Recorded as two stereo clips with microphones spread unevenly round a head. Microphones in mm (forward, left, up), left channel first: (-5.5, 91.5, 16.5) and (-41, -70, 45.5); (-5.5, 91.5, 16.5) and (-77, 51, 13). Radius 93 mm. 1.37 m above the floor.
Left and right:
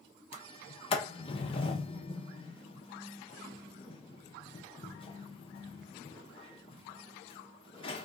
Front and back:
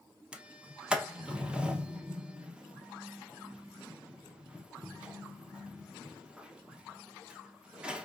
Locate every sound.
0.3 s a sliding door: 135° left, 0.6 m